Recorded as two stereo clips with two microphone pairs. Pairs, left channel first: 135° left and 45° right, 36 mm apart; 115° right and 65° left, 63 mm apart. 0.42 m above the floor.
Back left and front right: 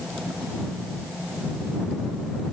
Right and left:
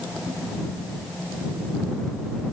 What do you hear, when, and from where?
Only background noise.